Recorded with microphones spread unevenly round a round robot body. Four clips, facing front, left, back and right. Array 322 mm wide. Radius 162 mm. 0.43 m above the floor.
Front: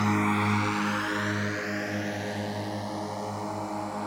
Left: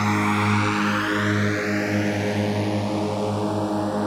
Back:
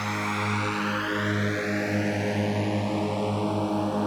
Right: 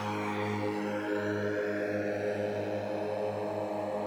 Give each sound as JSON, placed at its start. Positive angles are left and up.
{"t": 0.0, "sound": "a drone", "azimuth_deg": 60}